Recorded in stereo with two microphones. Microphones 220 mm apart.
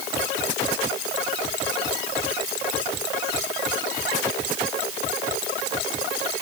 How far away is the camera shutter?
No camera shutter in this recording.